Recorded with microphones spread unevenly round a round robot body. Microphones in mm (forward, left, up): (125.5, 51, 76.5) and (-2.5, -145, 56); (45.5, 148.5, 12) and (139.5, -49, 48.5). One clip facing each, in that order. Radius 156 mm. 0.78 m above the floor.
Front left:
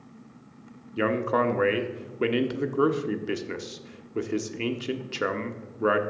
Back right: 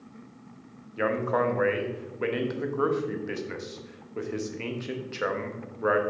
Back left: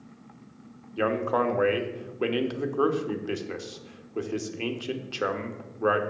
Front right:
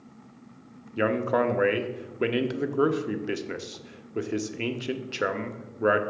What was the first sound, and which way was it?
A man speaking, 10° left.